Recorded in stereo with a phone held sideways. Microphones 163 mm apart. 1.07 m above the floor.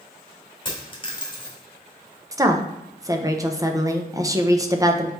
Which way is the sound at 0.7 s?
30° left (ahead or behind).